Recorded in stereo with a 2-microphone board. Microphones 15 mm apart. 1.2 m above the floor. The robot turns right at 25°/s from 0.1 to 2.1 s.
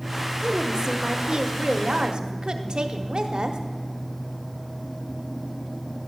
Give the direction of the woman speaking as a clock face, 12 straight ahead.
4 o'clock.